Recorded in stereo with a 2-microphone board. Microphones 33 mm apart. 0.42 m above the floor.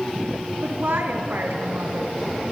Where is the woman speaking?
70° right (ahead or behind), 3 m.